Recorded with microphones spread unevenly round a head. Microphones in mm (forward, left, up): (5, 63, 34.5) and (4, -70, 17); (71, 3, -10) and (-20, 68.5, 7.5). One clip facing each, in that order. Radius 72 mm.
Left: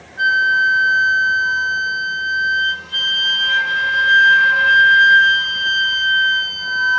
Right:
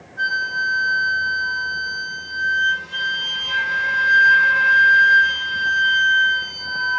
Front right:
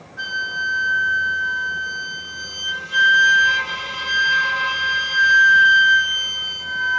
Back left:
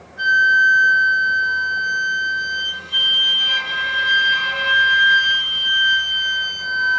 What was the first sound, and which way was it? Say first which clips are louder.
A flute: left 7 dB, back left 11 dB; 5° left.